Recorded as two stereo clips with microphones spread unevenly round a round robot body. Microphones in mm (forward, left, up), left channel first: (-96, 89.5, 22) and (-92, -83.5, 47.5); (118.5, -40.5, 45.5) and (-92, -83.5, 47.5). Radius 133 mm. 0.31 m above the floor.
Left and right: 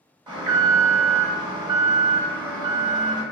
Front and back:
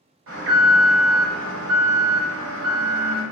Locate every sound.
0.3 s an alarm: 160° right, 1.2 m